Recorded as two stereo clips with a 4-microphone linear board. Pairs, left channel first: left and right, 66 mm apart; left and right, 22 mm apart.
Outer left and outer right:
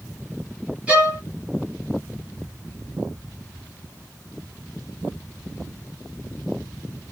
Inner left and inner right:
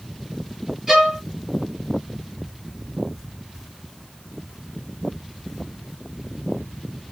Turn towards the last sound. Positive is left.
turn(degrees=-20)  # may be behind; listen again after turning